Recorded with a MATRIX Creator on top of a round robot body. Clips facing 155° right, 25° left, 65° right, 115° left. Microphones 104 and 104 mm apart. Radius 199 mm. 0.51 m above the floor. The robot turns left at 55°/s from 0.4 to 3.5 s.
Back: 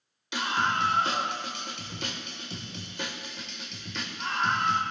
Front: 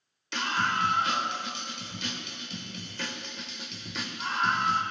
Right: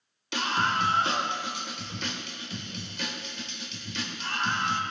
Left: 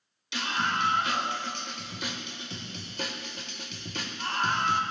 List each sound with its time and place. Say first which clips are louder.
0.3 s a scream: back 1 dB, right 3 dB; 80° right, 2 m; by 4.8 s 110° left, 2 m